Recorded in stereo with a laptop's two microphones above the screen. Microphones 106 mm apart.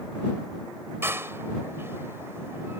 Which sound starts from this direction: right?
A door slam, at 1.0 s.